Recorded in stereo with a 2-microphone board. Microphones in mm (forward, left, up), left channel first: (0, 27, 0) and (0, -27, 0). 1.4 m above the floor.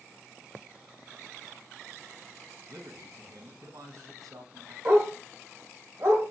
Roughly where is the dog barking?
Right.